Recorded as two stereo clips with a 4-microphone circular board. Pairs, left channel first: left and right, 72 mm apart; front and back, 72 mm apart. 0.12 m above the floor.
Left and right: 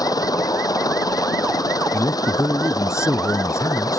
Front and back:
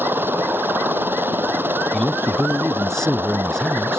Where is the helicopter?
115° left.